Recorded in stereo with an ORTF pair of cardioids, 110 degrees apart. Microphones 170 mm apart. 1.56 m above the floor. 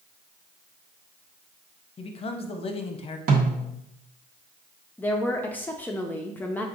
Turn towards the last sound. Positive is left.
turn(degrees=10)